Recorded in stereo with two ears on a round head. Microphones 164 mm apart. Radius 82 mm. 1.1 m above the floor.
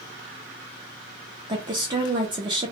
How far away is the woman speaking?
About 0.5 m.